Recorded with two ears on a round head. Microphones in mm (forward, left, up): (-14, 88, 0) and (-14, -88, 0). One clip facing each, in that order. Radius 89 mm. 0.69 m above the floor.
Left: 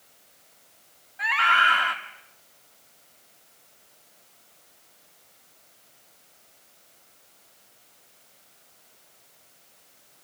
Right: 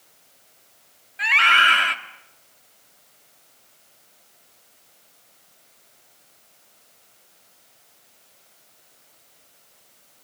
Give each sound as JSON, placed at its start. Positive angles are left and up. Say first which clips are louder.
{"t": 1.2, "sound": "a scream", "louder": "right 2 dB", "side_deg": -30, "distance_m": 1.9}